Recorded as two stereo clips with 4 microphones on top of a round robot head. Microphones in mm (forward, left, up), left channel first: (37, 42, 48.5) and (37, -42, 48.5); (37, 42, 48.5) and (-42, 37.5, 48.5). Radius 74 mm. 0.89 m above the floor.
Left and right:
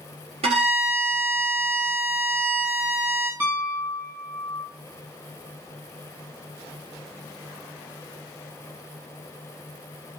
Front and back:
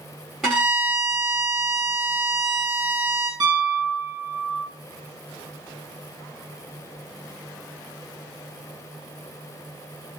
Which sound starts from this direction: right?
A violin, at 0.4 s.